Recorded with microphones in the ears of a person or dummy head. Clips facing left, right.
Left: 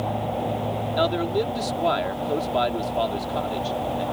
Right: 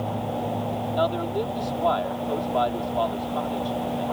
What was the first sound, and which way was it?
A man speaking, 25° left (ahead or behind).